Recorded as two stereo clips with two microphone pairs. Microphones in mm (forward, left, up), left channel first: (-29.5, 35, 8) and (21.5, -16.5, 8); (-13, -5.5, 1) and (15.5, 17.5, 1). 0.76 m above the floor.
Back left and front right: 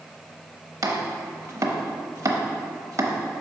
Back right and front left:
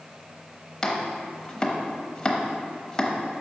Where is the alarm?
I don't hear an alarm.